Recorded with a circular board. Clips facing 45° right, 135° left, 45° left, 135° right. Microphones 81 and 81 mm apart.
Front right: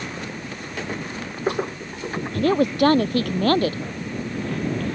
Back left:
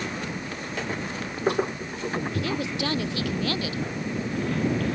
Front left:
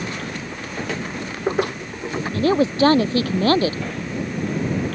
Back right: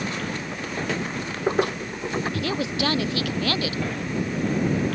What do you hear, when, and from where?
2.3 s a woman speaking: 10° right